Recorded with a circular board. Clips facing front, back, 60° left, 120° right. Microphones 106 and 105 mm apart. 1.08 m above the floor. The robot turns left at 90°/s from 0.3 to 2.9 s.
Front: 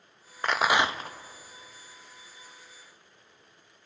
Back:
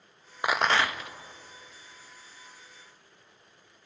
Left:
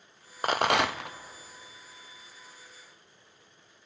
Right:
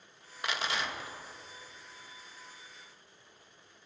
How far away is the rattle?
About 0.5 m.